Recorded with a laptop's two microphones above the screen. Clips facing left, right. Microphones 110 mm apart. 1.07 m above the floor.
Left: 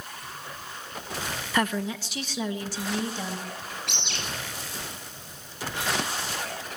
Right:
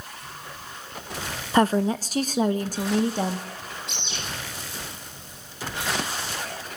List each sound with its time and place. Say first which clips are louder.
1.5 s a woman speaking: right 7 dB; 30° right (ahead or behind), 0.6 m; by 3.5 s 50° right (ahead or behind), 1.9 m
3.9 s a bird: even; 75° left (ahead or behind), 8 m